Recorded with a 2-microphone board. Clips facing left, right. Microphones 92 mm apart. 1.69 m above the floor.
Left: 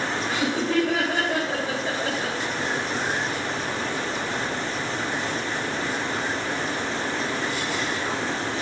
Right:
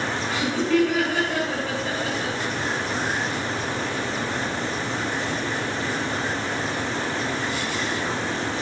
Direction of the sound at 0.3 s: 30° left (ahead or behind).